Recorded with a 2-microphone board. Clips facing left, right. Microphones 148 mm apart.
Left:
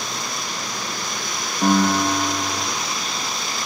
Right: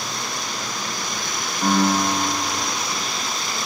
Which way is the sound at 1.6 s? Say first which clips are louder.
Left 2 dB; 45° left (ahead or behind).